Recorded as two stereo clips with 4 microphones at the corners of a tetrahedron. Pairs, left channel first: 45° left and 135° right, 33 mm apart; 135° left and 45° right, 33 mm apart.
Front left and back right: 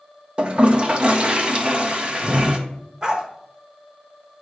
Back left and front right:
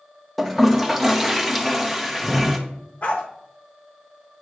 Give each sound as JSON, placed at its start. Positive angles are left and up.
{"t": 0.4, "sound": "a toilet flushing", "azimuth_deg": -125, "distance_m": 0.8}
{"t": 3.0, "sound": "a dog barking", "azimuth_deg": 165, "distance_m": 1.0}